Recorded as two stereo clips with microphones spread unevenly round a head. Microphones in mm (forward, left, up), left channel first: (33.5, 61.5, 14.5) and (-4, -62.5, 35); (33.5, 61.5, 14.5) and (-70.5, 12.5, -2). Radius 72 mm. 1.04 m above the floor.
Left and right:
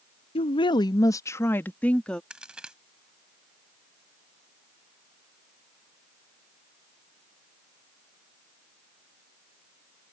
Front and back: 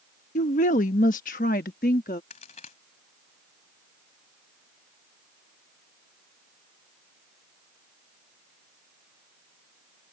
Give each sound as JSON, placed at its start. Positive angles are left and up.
{"t": 0.3, "sound": "a woman speaking", "azimuth_deg": 35}
{"t": 2.3, "sound": "a crack", "azimuth_deg": -25}